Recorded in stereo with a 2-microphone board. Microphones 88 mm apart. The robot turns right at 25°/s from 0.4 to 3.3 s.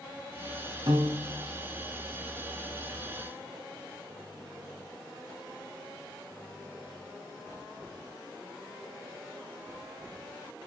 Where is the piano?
55° right (ahead or behind), 3 m; by 1.4 s 45° right (ahead or behind), 3 m.